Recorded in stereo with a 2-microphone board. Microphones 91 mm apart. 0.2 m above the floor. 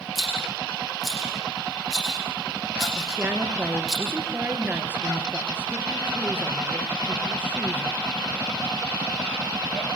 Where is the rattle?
5° right (ahead or behind), 9 m.